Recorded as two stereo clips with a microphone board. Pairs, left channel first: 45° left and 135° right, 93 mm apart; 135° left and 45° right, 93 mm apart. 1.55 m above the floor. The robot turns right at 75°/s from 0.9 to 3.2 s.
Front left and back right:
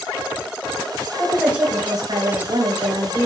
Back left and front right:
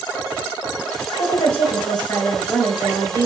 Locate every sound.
1.2 s a woman speaking: 120° left, 1.7 m; by 3.3 s 90° right, 1.7 m